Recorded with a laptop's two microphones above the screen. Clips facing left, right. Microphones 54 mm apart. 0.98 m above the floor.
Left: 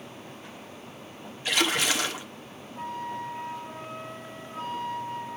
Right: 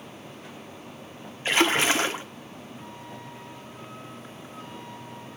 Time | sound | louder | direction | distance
1.4 | a splash | right 4 dB | 35° right (ahead or behind) | 1.2 m
2.8 | a flute | left 12 dB | 50° left (ahead or behind) | 1.4 m